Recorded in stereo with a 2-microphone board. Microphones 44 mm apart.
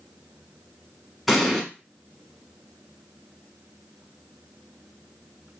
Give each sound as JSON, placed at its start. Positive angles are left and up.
{"t": 1.3, "sound": "an explosion", "side_deg": 0, "distance_m": 0.9}